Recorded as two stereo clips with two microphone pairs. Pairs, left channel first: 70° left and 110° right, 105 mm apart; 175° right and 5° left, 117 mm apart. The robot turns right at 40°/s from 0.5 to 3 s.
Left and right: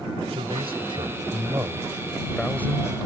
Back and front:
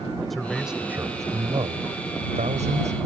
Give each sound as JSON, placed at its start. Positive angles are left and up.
{"t": 0.3, "sound": "a man speaking", "azimuth_deg": -90}